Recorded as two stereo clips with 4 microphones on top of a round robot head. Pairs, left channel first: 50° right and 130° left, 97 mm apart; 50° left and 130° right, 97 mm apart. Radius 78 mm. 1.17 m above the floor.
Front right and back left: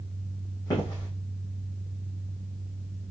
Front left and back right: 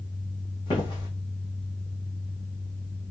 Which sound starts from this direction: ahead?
Footsteps, at 0.7 s.